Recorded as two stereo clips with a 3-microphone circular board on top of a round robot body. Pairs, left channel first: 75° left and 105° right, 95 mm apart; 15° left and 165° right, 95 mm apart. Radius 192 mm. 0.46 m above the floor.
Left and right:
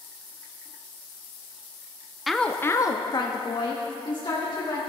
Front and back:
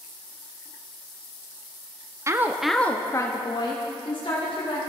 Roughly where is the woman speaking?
Behind.